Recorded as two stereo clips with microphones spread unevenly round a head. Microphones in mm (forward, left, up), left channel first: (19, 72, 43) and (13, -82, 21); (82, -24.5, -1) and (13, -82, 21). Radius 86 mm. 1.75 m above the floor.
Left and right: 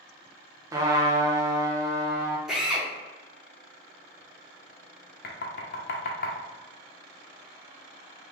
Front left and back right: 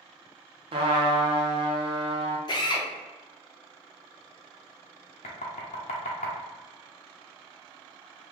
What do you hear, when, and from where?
0.7 s a trumpet: 165° right, 0.5 m
2.5 s a drill: straight ahead, 0.9 m
5.2 s knocking: 70° left, 0.7 m